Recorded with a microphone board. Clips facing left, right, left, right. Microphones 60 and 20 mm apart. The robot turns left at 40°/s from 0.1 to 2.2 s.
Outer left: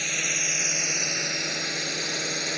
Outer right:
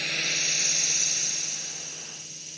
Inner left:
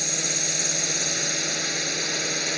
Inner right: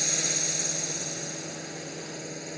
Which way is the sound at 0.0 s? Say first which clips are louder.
Outer left 1 dB, inner left 2 dB; 175° left.